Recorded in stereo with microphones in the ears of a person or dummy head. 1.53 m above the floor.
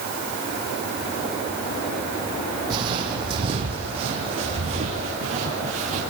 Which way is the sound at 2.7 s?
25° right (ahead or behind).